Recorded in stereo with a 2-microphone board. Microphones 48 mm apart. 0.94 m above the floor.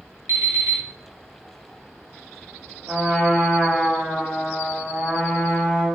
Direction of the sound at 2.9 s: 15° right (ahead or behind).